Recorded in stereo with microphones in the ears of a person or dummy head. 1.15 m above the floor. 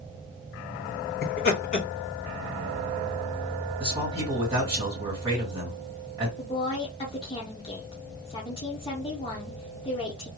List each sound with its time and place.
1.2 s laughter: 40° left (ahead or behind), 1.5 m
3.8 s a man speaking: 20° right (ahead or behind), 2 m
6.4 s a woman speaking: 20° left (ahead or behind), 0.7 m